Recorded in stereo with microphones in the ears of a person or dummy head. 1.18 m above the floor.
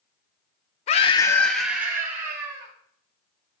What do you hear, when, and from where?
0.9 s a scream: 35° left (ahead or behind), 0.6 m; by 2.7 s 20° right (ahead or behind), 2 m